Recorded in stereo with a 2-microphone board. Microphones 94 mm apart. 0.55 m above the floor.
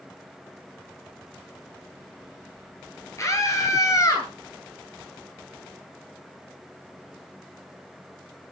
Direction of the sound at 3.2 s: 35° left (ahead or behind).